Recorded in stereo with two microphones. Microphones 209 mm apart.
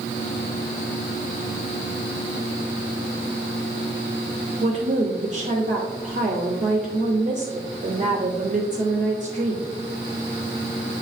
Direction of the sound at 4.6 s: 35° right (ahead or behind).